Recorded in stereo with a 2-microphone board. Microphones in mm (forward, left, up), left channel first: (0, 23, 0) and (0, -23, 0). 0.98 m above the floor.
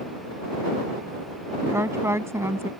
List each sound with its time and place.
1.6 s a woman speaking: 80° right